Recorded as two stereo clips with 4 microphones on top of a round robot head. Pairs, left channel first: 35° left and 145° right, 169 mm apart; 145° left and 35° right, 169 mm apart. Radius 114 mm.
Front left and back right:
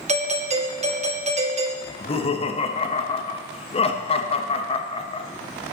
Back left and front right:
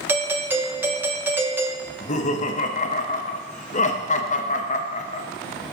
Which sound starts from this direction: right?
A doorbell, at 0.1 s.